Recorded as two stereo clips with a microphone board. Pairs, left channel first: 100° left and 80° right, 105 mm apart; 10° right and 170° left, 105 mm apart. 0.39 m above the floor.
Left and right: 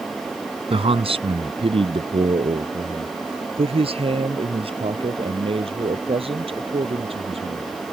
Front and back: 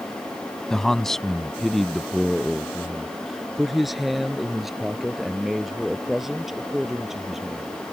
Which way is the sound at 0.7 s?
95° right.